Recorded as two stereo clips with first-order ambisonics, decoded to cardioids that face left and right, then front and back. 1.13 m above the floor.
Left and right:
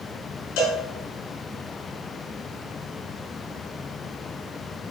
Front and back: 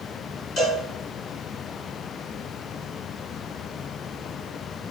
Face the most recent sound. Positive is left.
turn(degrees=60)